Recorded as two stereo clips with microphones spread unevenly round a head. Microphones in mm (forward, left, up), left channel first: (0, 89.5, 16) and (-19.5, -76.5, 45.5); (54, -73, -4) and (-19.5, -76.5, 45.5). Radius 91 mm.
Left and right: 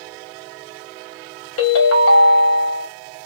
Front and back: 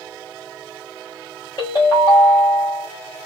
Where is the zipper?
I don't hear a zipper.